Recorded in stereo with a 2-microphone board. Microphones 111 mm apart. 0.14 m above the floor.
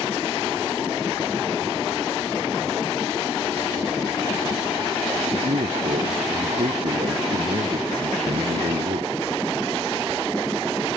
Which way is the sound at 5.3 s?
75° right (ahead or behind).